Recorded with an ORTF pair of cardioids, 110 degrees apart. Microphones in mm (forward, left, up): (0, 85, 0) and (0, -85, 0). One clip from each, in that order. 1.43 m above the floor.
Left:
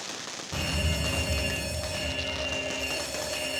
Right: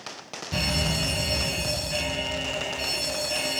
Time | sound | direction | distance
0.5 | a fire alarm | 45° right | 2 m